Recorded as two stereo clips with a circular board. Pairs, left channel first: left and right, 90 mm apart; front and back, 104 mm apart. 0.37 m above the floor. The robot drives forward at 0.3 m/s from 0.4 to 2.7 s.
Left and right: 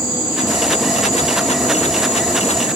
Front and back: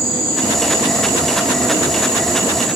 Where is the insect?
85° right, 7 m; by 2.8 s 90° right, 7 m.